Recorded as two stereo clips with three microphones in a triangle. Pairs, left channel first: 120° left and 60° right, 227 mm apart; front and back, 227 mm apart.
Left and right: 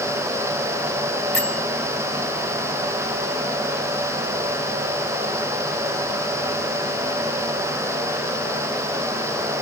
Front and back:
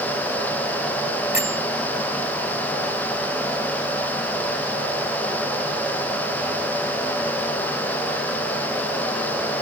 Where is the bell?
140° left.